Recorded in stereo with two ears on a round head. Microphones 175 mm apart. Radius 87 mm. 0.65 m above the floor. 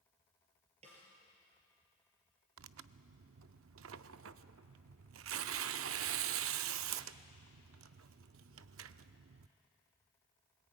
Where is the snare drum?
35° right (ahead or behind), 5.5 m.